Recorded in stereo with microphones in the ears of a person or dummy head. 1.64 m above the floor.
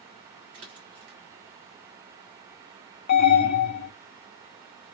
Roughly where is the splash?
Right.